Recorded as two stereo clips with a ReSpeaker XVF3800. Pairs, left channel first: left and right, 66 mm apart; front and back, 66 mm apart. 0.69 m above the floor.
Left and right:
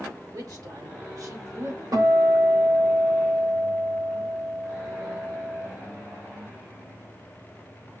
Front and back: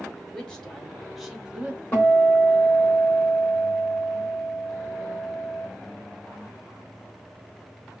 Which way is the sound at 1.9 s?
70° right.